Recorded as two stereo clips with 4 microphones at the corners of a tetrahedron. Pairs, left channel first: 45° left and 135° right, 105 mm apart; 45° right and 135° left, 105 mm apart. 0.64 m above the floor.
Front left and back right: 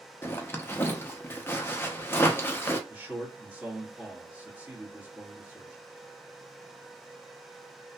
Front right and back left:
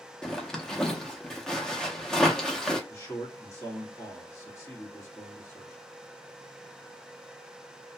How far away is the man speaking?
About 1.2 m.